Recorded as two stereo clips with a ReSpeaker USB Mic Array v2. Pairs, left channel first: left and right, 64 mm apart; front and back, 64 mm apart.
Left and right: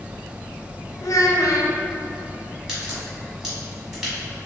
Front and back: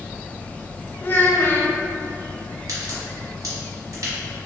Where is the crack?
170° right, 1.4 m.